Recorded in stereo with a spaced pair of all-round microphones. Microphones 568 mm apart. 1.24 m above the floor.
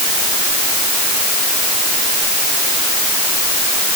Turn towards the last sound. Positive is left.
No sound to turn to.